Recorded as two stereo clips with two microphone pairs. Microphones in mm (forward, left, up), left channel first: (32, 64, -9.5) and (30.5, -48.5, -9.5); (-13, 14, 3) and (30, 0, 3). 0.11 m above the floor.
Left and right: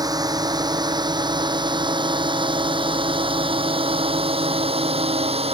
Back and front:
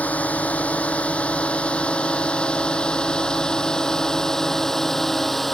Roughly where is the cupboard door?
No cupboard door in this recording.